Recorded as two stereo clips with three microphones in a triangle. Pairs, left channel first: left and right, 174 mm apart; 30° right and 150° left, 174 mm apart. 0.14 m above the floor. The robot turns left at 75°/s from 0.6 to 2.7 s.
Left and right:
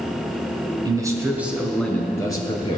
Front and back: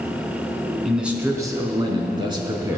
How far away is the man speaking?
About 1.2 m.